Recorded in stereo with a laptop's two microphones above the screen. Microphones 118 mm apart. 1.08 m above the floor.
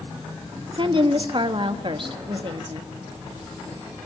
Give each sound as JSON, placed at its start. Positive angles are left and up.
{"t": 0.7, "sound": "a woman speaking", "side_deg": -45, "distance_m": 1.7}